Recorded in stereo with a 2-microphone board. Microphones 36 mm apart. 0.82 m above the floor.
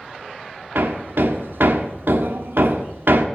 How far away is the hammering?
About 1.0 m.